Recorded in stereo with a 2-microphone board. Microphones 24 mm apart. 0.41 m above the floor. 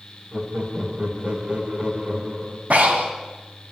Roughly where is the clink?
No clink in this recording.